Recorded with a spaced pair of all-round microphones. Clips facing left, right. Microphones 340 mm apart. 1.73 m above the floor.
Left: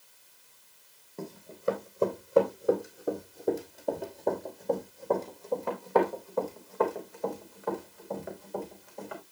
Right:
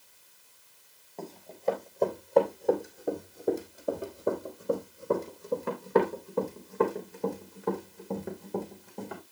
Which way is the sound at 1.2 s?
20° left (ahead or behind).